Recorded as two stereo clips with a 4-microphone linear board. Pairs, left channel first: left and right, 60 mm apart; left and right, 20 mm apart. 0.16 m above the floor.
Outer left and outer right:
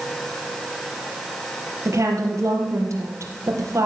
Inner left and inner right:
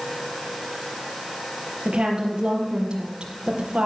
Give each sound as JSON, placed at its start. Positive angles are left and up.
{"t": 1.9, "sound": "a woman speaking", "side_deg": -55, "distance_m": 4.5}